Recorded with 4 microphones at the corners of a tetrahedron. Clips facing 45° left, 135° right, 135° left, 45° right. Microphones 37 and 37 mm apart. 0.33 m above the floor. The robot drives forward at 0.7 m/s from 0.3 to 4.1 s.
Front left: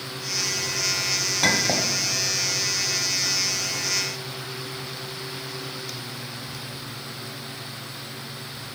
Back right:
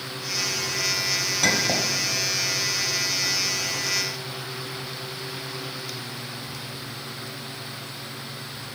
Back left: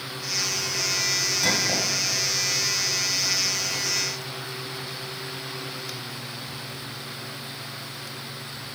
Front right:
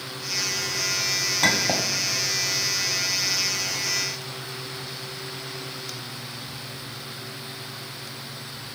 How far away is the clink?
About 1.5 m.